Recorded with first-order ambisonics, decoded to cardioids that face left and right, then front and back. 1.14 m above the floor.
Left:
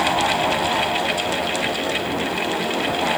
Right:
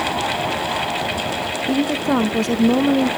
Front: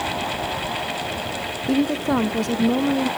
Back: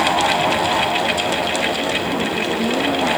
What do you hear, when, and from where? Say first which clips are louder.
1.7 s a woman speaking: right 3 dB, back 2 dB; 40° right, 0.6 m; by 3.1 s 80° right, 1.3 m